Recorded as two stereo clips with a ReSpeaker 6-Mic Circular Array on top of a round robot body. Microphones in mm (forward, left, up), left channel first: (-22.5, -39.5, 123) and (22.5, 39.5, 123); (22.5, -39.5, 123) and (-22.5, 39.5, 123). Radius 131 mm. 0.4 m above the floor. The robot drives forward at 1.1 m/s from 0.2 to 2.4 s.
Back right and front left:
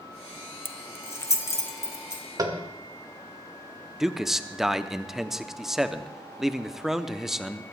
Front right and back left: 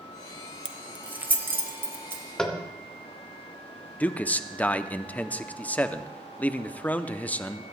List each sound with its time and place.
0.7 s keys jangling: 165° right, 0.8 m; by 2.2 s 175° right, 2.5 m
2.4 s tapping: 20° left, 1.9 m
4.0 s a man speaking: 20° right, 0.9 m